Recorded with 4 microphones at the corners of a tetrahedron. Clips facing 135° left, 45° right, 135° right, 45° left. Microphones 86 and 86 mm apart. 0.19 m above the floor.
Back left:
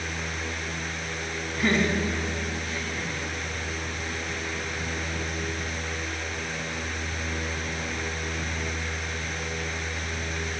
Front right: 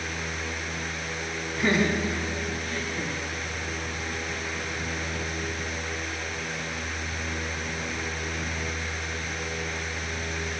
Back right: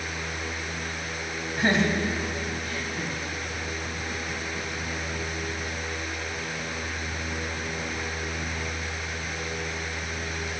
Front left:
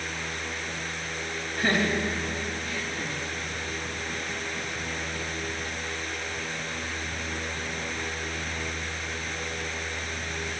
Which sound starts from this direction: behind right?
Laughter, at 1.6 s.